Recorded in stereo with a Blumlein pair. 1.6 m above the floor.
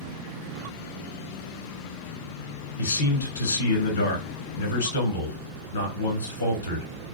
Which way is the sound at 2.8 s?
65° left.